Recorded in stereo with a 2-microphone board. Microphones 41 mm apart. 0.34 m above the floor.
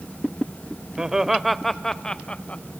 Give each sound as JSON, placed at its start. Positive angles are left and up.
{"t": 1.0, "sound": "laughter", "side_deg": -15, "distance_m": 1.0}